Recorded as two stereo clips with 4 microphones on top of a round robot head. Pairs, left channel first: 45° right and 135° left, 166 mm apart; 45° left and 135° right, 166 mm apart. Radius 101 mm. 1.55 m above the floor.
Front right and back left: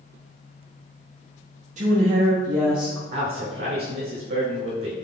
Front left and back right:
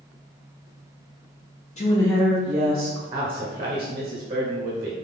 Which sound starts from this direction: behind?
A man speaking, at 3.1 s.